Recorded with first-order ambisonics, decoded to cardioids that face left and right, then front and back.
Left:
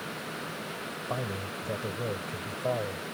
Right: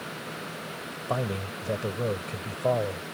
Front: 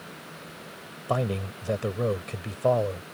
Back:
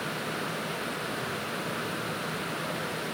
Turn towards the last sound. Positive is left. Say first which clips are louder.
# right 5 dB, front 3 dB
turn(degrees=-20)